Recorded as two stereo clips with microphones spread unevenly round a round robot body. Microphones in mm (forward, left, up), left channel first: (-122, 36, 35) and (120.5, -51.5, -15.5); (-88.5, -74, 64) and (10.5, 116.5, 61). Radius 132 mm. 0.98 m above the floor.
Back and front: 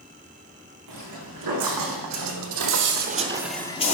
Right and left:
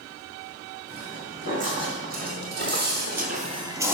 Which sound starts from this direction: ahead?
Footsteps, at 0.9 s.